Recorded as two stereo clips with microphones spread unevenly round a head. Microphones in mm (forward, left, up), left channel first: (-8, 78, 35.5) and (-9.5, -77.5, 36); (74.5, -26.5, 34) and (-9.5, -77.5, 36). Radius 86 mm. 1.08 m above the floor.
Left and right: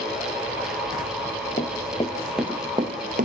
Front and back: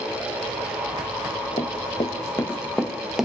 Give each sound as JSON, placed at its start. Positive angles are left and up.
{"t": 1.6, "sound": "running footsteps", "azimuth_deg": 50, "distance_m": 1.5}